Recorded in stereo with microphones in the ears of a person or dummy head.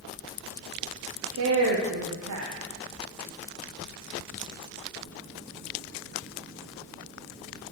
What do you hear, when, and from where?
1.3 s a woman speaking: 75° right (ahead or behind), 0.8 m